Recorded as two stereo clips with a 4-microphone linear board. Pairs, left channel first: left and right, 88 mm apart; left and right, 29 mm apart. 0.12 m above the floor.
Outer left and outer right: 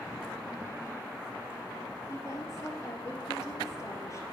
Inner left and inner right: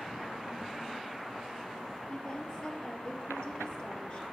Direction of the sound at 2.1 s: 35° left (ahead or behind).